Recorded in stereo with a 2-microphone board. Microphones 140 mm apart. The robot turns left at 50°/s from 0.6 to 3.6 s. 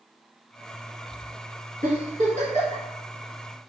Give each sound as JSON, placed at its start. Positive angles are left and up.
{"t": 1.8, "sound": "a giggle", "side_deg": -75, "distance_m": 1.3}